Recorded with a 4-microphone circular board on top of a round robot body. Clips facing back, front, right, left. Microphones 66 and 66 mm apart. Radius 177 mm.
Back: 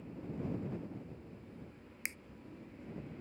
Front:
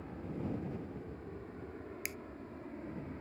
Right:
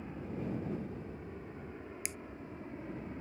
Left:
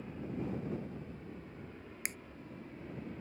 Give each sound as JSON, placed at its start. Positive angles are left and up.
{"t": 0.0, "sound": "an aircraft", "azimuth_deg": -20}
{"t": 2.0, "sound": "a finger snap", "azimuth_deg": 125}